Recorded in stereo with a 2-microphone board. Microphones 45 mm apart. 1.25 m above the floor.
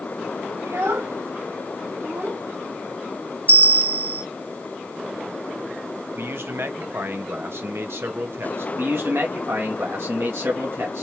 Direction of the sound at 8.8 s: 60° right (ahead or behind).